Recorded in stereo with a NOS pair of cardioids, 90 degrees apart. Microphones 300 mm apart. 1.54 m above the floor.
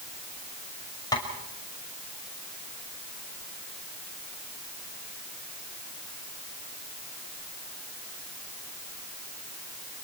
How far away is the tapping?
About 6 m.